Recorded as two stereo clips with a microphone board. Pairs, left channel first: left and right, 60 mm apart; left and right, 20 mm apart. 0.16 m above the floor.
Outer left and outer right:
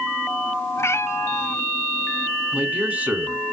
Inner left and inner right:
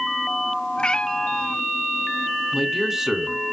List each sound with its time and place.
0.8 s a cat meowing: 45° left (ahead or behind), 0.5 m
2.5 s a man speaking: 25° right (ahead or behind), 1.4 m